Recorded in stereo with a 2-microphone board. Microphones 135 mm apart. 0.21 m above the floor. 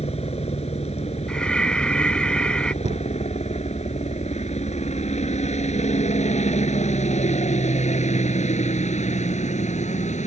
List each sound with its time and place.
0.0 s a helicopter: 50° left (ahead or behind); by 10.3 s 60° left (ahead or behind)
1.3 s breathing: 10° left (ahead or behind)
2.8 s a cupboard door: 55° right (ahead or behind)